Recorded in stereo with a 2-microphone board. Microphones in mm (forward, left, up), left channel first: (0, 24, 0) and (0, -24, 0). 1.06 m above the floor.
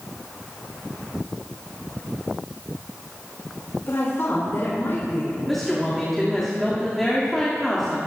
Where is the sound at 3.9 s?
55° left (ahead or behind), 4 m.